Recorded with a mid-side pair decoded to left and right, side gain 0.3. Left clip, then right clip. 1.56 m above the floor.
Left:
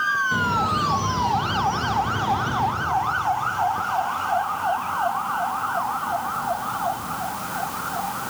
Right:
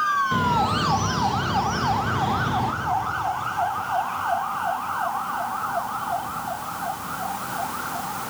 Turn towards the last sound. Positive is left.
turn(degrees=-35)